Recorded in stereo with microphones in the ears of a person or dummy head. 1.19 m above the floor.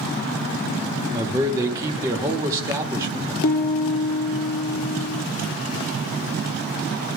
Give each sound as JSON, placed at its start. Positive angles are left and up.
{"t": 1.1, "sound": "a man speaking", "side_deg": -20, "distance_m": 1.8}
{"t": 3.4, "sound": "a piano", "side_deg": 55, "distance_m": 1.1}